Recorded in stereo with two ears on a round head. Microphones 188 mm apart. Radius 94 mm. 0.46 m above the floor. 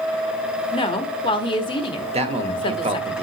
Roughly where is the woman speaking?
Left.